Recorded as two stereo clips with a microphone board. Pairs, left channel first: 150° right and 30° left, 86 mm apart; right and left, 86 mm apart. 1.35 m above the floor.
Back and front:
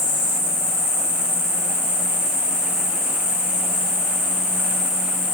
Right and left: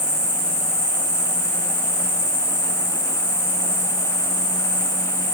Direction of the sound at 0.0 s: 130° right.